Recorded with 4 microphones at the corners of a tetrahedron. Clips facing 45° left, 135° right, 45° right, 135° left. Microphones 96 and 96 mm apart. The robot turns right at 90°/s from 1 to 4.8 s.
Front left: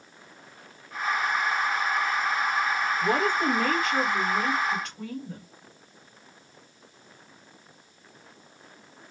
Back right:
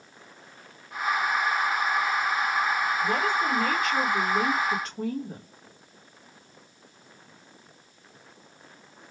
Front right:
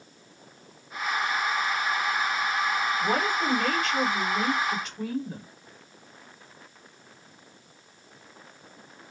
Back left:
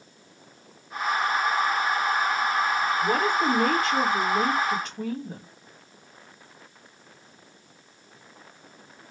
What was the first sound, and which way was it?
A woman speaking, 20° left.